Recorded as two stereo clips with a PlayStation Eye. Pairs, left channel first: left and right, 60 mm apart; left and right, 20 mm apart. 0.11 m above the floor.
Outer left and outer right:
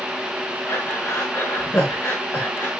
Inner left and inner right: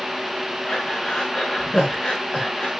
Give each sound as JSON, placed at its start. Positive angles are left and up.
{"t": 0.7, "sound": "breathing", "side_deg": 50, "distance_m": 6.0}